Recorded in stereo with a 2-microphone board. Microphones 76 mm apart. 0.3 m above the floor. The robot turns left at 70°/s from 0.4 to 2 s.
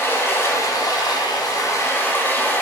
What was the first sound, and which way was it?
Running water, 145° left.